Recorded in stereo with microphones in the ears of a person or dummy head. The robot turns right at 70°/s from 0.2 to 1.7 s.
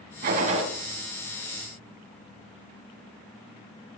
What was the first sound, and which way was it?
A gunshot, 65° right.